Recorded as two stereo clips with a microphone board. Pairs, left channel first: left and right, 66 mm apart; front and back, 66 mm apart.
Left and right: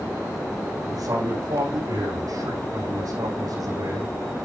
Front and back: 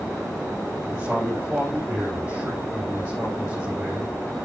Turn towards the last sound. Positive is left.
turn(degrees=-105)